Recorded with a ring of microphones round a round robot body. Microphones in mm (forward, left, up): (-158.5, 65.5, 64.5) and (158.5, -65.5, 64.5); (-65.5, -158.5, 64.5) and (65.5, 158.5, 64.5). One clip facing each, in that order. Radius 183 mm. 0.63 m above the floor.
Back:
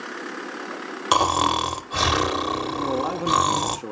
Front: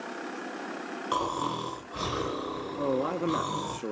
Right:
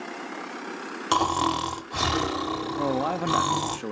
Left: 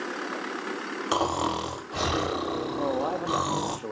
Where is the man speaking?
120° right, 0.9 m.